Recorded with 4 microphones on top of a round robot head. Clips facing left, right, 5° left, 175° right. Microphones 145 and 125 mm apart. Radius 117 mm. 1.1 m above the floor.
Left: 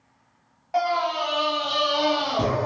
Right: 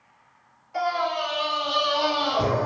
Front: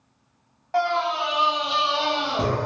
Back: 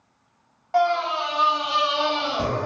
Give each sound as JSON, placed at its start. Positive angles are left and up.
{"t": 0.7, "sound": "a scream", "azimuth_deg": 100, "distance_m": 1.6}